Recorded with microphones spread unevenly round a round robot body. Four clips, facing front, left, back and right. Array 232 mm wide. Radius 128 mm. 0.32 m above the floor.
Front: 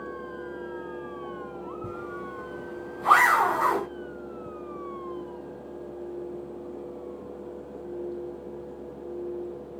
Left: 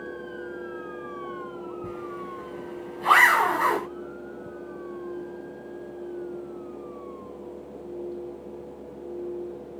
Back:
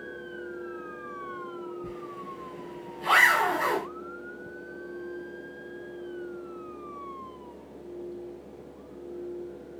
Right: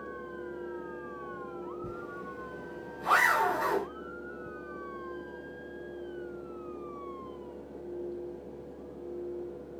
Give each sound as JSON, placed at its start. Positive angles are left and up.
{"t": 1.8, "sound": "a zipper", "azimuth_deg": 40, "distance_m": 1.4}